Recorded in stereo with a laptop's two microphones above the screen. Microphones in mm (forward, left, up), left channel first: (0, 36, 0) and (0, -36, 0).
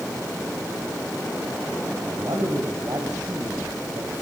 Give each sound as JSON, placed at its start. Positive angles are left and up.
{"t": 2.1, "sound": "a man speaking", "side_deg": -65, "distance_m": 6.0}